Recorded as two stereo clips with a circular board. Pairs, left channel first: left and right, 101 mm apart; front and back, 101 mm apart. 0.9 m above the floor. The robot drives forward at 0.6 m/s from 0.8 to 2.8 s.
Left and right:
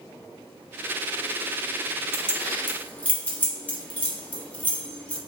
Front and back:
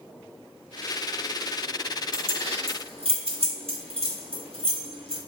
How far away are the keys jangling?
About 0.7 m.